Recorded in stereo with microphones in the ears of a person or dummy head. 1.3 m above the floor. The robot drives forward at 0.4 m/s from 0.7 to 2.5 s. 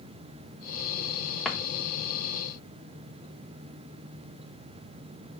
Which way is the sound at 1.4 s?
5° left (ahead or behind).